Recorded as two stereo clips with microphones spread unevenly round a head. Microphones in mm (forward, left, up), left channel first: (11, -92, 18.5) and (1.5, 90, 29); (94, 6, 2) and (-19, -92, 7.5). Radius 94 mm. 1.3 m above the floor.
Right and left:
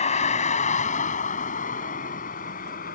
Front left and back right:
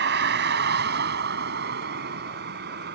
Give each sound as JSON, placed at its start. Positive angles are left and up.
{"t": 0.0, "sound": "a vehicle", "azimuth_deg": -145}